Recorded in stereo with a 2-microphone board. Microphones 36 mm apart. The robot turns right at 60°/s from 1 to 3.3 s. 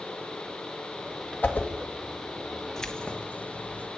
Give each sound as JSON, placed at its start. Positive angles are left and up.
{"t": 1.4, "sound": "a whoosh", "side_deg": 50, "distance_m": 1.7}
{"t": 2.8, "sound": "keys jangling", "azimuth_deg": 15, "distance_m": 1.1}